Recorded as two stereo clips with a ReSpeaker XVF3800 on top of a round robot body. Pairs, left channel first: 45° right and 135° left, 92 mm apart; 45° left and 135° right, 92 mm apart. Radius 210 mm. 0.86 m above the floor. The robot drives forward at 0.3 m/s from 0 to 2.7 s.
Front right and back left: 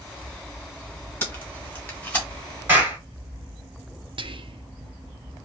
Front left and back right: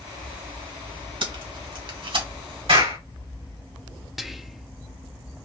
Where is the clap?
155° right, 3 m.